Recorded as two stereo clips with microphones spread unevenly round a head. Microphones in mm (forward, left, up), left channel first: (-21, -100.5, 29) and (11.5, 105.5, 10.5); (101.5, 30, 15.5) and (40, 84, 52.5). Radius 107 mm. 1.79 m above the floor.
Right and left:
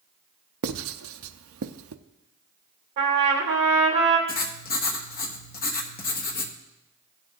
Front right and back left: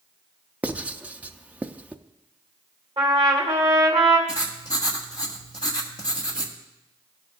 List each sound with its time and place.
0.6 s writing: 85° left, 0.6 m
3.0 s a trumpet: 120° left, 2.5 m
4.3 s writing: 95° right, 1.1 m